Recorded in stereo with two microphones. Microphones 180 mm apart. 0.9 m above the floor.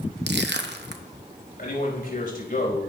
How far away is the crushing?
About 0.8 m.